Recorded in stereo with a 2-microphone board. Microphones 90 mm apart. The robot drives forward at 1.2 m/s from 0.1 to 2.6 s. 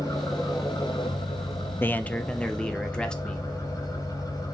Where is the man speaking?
25° left (ahead or behind), 0.6 m; by 3.5 s 10° left (ahead or behind), 1.5 m.